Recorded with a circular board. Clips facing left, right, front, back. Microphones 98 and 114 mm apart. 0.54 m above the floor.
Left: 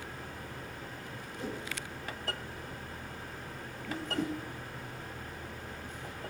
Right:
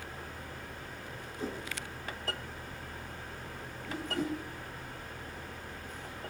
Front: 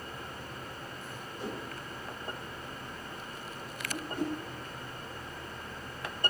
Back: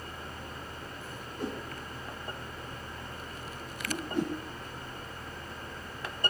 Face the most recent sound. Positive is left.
turn(degrees=-165)